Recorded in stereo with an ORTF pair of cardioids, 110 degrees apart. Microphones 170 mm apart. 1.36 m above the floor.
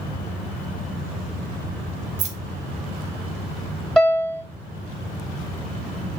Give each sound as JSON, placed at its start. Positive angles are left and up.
{"t": 2.2, "sound": "keys jangling", "azimuth_deg": -45, "distance_m": 0.7}
{"t": 4.0, "sound": "a piano", "azimuth_deg": 0, "distance_m": 1.5}